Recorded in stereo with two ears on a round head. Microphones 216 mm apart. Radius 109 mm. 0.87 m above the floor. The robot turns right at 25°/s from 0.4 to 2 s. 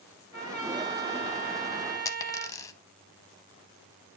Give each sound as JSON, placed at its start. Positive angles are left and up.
{"t": 0.3, "sound": "a trumpet", "azimuth_deg": 150, "distance_m": 7.0}
{"t": 2.0, "sound": "a dropped coin", "side_deg": 15, "distance_m": 0.8}